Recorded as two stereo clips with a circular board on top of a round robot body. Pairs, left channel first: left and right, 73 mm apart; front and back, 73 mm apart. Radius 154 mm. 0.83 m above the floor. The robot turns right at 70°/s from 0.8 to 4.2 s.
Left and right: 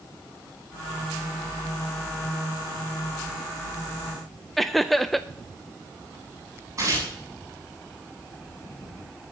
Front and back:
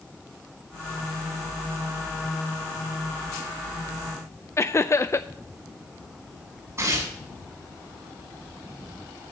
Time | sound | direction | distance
4.6 | laughter | straight ahead | 0.7 m
6.8 | tearing paper | 135° right | 9 m